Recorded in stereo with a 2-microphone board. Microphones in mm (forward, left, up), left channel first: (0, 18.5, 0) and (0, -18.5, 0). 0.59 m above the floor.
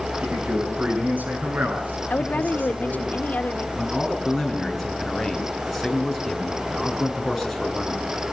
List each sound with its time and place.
0.2 s a man speaking: 50° right (ahead or behind), 8.5 m; by 3.1 s 70° right (ahead or behind), 10.5 m
2.1 s a woman speaking: 50° left (ahead or behind), 1.2 m
3.8 s a man speaking: centre (ahead or behind), 6.5 m